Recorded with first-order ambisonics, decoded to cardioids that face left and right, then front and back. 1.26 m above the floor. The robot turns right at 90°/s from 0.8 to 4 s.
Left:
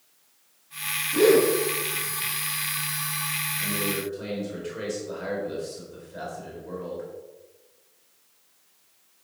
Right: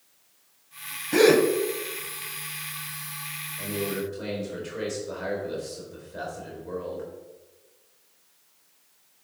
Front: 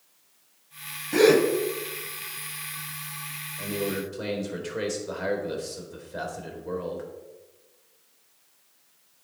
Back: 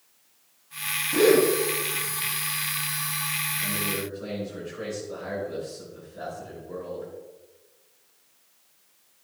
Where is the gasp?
75° right, 1.7 m; by 1.4 s 45° right, 1.7 m.